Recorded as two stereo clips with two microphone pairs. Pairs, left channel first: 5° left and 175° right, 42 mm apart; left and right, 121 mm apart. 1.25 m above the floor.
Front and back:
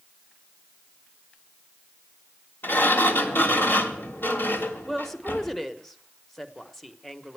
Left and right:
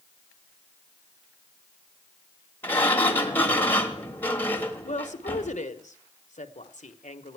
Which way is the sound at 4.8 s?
85° left.